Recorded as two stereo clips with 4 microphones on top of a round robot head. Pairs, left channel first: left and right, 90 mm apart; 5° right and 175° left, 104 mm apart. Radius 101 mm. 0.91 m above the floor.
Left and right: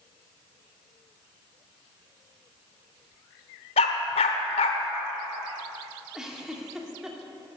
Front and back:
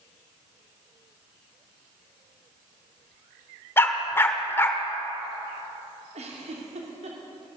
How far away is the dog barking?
About 1.2 m.